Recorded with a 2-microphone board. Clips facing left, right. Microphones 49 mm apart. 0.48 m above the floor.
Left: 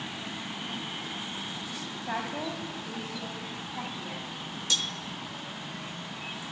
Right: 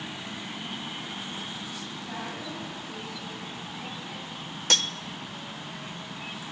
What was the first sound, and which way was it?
A woman speaking, 40° left (ahead or behind).